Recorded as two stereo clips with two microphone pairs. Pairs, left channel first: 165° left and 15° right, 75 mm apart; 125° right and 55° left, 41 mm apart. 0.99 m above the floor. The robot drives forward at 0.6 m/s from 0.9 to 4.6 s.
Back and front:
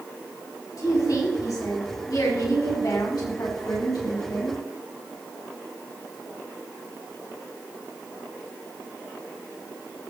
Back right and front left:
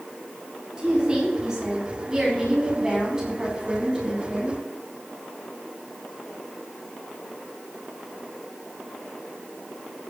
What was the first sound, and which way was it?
A woman speaking, 120° left.